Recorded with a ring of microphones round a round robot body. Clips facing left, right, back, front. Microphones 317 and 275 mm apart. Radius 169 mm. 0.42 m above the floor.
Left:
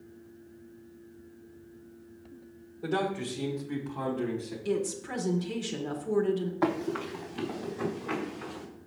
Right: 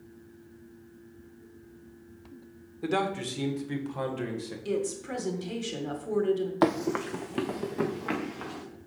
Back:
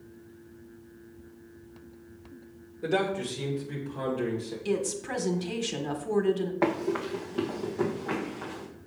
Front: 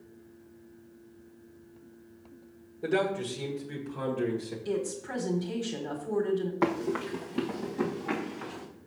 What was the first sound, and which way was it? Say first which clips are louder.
A man speaking: right 1 dB, even; 95° right.